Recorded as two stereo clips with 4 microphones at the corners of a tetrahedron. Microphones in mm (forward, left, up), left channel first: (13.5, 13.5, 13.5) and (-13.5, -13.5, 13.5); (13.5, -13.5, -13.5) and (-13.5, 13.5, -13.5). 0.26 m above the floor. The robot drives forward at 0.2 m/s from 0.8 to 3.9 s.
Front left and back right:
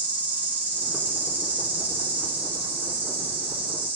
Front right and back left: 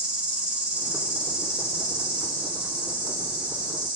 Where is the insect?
160° right, 3 m; by 4.0 s 165° right, 3.5 m.